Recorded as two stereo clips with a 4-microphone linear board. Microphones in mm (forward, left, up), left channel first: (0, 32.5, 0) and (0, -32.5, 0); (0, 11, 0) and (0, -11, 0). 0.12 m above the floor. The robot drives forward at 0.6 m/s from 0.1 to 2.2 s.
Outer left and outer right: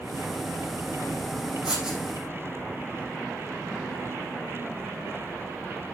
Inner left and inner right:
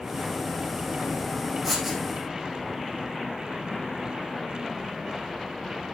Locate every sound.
1.6 s writing: 10° right (ahead or behind), 5.5 m